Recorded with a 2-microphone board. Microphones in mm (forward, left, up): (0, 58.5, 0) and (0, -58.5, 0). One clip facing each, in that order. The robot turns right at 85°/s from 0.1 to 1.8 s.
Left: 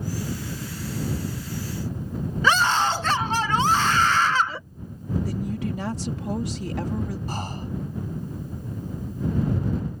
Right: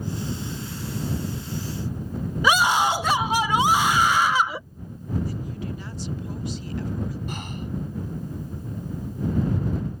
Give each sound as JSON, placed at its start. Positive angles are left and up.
{"t": 2.4, "sound": "a scream", "side_deg": -10}
{"t": 5.2, "sound": "a woman speaking", "side_deg": 80}
{"t": 7.3, "sound": "breathing", "side_deg": 35}